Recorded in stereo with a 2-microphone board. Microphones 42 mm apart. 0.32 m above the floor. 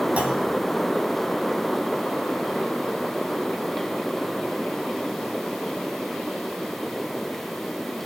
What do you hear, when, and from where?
0.2 s a clunk: 30° right (ahead or behind), 1.2 m